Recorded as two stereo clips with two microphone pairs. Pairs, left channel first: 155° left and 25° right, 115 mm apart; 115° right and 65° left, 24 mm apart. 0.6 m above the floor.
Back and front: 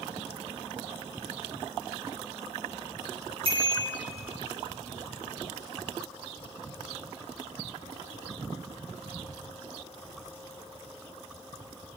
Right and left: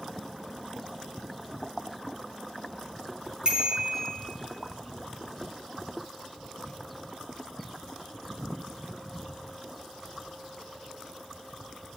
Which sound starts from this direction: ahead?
A bicycle bell, at 3.5 s.